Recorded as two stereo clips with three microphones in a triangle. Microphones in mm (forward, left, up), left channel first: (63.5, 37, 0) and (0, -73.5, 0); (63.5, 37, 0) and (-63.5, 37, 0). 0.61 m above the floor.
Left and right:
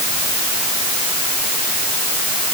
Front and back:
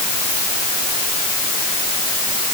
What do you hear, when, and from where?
Only background noise.